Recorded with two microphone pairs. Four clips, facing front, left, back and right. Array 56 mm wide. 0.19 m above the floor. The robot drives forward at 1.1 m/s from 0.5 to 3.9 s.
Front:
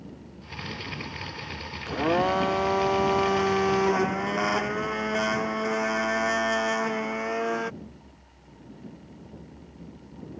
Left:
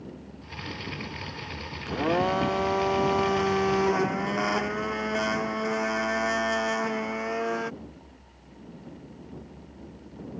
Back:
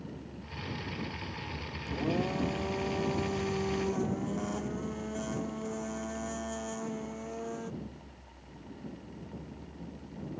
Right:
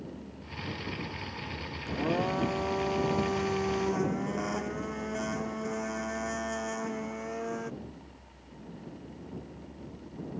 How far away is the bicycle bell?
No bicycle bell in this recording.